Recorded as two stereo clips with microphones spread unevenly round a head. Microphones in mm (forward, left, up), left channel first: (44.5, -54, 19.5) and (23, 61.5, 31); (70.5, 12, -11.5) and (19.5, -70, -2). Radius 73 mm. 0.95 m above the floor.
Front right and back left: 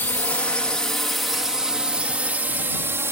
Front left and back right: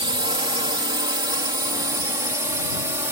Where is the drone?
150° right; by 3.1 s 170° left.